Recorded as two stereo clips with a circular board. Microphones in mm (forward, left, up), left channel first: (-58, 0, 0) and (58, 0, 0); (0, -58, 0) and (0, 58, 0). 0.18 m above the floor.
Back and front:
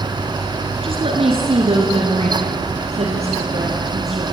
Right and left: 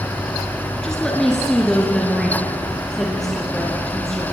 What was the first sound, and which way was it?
A woman speaking, 5° right.